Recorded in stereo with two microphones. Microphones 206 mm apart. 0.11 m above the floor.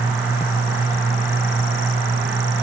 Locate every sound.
Only background noise.